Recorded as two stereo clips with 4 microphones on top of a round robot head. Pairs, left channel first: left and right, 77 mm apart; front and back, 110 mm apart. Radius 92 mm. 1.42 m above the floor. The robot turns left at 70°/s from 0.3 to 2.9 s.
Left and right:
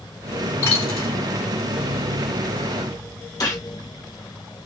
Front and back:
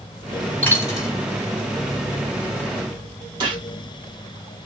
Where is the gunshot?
130° left, 1.4 m.